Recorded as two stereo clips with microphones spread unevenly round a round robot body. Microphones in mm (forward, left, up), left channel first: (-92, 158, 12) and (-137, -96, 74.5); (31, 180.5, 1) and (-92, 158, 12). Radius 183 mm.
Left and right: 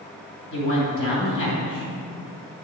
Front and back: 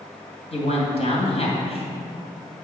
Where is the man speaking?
40° left, 2.5 m.